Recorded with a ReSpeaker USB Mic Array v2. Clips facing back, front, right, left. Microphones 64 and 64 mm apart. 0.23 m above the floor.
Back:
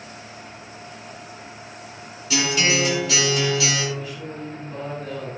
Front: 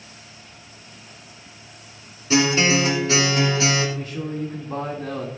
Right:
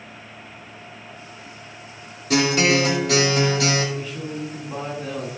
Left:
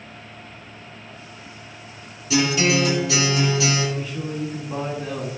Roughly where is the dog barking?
No dog barking in this recording.